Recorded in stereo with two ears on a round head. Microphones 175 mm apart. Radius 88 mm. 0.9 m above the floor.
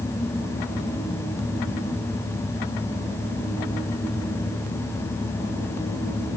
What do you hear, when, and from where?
Only background noise.